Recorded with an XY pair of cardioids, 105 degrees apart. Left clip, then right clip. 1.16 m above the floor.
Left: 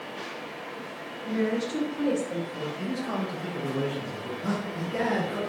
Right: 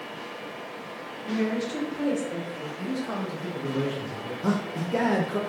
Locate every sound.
1.2 s a woman speaking: 5° left, 2 m
2.8 s a man speaking: 5° right, 1.1 m
4.4 s a man speaking: 45° right, 0.7 m